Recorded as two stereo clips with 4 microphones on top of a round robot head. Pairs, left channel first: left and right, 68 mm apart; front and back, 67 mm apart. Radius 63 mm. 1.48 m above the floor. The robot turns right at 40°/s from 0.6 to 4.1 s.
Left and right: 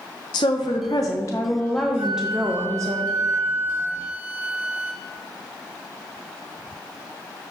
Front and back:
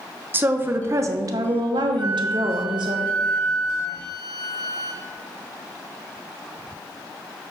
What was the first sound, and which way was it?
A woman speaking, 125° left.